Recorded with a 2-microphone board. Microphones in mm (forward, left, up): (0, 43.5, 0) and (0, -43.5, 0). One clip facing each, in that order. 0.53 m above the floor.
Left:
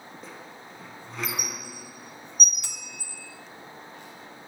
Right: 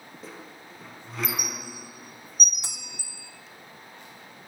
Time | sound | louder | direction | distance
0.2 | a squeak | right 3 dB | centre (ahead or behind) | 1.1 m
2.6 | a bell | left 1 dB | 20° right (ahead or behind) | 1.4 m